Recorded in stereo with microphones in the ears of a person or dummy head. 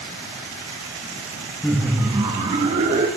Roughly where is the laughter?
Centre.